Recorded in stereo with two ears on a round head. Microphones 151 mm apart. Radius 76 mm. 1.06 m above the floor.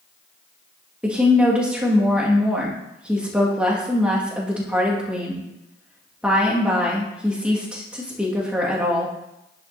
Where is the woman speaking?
5° right (ahead or behind), 1.8 m.